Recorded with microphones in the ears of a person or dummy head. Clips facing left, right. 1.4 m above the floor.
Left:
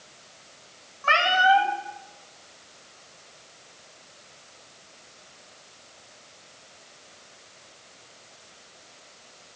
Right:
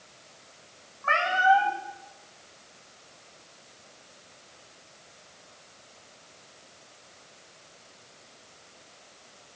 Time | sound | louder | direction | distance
1.0 | a cat meowing | left 1 dB | 45° left (ahead or behind) | 1.2 m